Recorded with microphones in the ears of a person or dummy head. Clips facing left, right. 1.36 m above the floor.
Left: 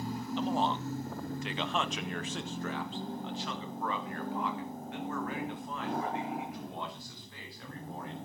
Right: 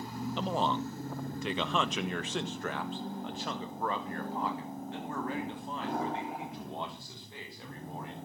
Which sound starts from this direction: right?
A man speaking, at 0.4 s.